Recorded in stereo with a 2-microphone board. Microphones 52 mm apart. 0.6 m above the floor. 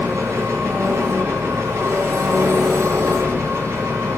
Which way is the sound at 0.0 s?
70° right (ahead or behind).